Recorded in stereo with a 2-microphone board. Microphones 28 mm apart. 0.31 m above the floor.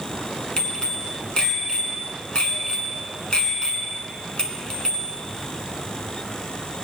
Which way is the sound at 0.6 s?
30° left (ahead or behind).